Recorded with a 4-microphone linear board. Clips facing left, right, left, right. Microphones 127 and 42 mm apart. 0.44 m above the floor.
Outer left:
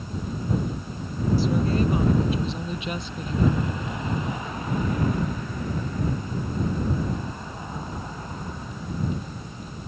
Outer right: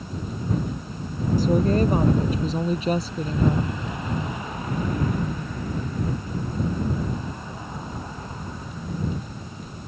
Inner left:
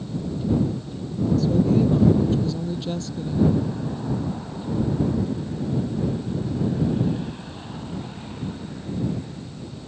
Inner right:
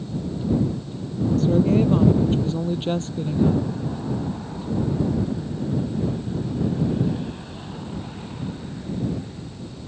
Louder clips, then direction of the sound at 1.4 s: Outer right 5 dB, inner right 2 dB; 45° right (ahead or behind).